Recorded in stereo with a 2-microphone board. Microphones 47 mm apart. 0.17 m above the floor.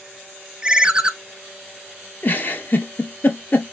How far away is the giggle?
About 0.7 m.